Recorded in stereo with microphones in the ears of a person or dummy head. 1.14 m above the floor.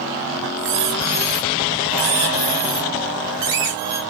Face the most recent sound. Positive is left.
turn(degrees=-25)  # may be behind; listen again after turning